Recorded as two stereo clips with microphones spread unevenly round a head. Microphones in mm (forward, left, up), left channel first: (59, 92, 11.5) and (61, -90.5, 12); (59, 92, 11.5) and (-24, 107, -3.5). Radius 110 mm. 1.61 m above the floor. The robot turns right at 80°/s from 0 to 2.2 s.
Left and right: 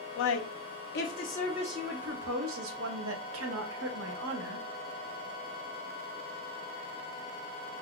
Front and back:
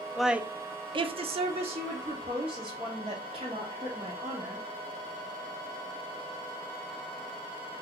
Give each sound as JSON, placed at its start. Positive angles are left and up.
{"t": 0.2, "sound": "a woman speaking", "azimuth_deg": 75, "distance_m": 0.5}